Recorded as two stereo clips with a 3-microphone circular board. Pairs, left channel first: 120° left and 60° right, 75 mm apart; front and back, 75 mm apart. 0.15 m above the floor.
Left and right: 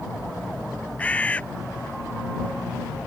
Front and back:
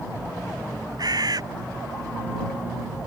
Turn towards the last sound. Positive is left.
turn(degrees=-170)